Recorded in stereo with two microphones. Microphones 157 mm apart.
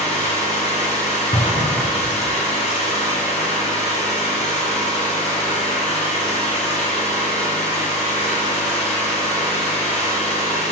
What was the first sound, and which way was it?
An engine running, 50° left (ahead or behind).